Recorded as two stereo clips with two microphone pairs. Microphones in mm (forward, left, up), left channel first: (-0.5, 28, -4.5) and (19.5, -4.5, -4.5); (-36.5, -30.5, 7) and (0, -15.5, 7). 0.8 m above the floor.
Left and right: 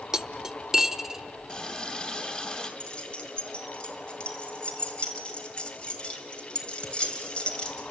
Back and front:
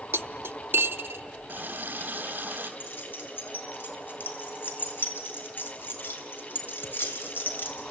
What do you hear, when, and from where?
0.1 s cutlery clinking: 20° left, 0.6 m
1.5 s a running tap: 60° left, 2.5 m
2.8 s keys jangling: straight behind, 2.5 m